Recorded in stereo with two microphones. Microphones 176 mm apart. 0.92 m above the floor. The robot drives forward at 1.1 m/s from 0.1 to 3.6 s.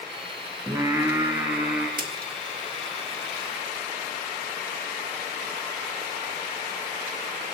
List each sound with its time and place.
0.7 s singing: 15° right (ahead or behind), 2.5 m; by 1.9 s 10° right (ahead or behind), 3.5 m
2.0 s a splash: 55° right (ahead or behind), 1.8 m; by 2.3 s 60° right (ahead or behind), 1.7 m